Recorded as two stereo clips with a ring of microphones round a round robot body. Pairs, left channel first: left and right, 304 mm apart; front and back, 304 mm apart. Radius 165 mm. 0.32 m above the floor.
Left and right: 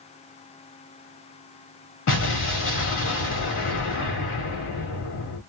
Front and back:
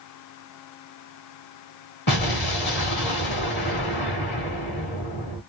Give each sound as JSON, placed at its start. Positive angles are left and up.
{"t": 2.1, "sound": "an explosion", "azimuth_deg": 50, "distance_m": 1.2}